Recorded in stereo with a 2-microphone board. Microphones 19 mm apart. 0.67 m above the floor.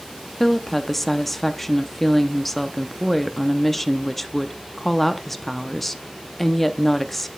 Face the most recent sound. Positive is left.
turn(degrees=10)  # may be behind; listen again after turning